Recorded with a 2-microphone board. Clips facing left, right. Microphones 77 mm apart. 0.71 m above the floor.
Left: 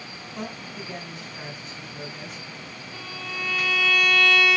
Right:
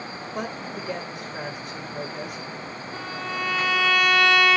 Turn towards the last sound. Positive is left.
turn(degrees=-40)  # may be behind; listen again after turning